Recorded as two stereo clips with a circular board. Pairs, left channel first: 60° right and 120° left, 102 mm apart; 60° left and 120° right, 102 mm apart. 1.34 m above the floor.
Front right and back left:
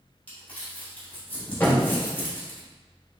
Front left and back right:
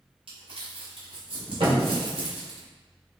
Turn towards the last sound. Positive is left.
turn(degrees=-125)